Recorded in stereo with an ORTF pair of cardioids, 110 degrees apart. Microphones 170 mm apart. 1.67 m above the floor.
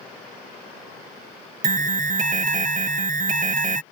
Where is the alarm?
50° right.